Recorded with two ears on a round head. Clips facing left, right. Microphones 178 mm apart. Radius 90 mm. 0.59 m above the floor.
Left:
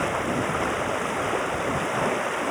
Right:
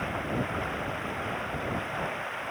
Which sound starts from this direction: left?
Running water, at 0.0 s.